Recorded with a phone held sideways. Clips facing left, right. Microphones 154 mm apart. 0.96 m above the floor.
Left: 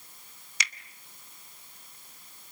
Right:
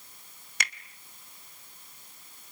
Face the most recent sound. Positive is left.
turn(degrees=-50)  # may be behind; listen again after turning